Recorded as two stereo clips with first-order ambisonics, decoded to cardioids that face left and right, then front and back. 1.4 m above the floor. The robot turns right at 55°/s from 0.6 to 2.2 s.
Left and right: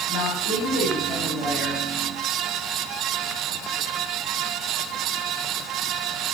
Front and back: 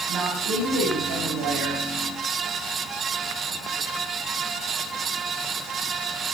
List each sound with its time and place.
0.1 s a woman speaking: 130° left, 7.5 m; by 1.8 s 165° right, 7.5 m